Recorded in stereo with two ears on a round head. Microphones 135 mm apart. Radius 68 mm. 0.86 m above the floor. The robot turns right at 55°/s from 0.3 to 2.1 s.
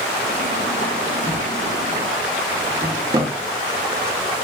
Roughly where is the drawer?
Centre.